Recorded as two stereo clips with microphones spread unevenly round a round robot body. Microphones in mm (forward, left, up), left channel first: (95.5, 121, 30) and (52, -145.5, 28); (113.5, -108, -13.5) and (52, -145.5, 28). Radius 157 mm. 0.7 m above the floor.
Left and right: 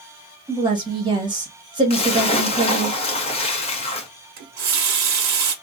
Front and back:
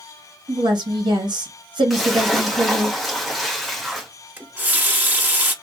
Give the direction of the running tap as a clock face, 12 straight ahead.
2 o'clock.